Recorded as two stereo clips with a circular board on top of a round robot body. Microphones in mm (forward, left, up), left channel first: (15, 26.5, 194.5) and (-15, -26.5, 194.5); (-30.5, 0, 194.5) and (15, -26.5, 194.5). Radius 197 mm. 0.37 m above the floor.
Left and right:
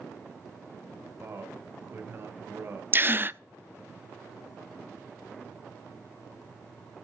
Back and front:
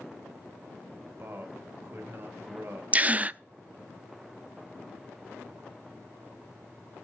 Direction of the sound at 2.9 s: 80° right.